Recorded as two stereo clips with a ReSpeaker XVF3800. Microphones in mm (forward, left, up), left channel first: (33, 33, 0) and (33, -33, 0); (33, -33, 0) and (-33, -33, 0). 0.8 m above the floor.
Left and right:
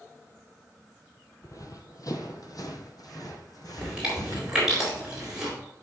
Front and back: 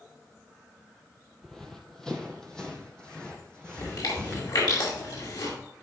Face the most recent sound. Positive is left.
turn(degrees=-10)